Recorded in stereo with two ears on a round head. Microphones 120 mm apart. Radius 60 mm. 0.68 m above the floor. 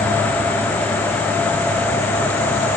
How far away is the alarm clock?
No alarm clock in this recording.